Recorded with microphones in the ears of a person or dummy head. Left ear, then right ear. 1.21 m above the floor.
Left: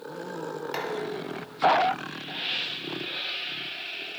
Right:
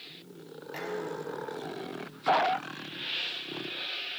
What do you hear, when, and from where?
0.7 s dishes clattering: 40° left (ahead or behind), 6.5 m